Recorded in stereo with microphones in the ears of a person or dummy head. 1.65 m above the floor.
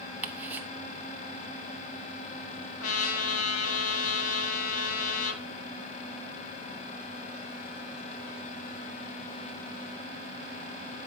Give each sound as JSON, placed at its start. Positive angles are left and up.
{"t": 0.2, "sound": "ticking", "side_deg": -10, "distance_m": 0.9}
{"t": 2.8, "sound": "a trumpet", "side_deg": 70, "distance_m": 1.1}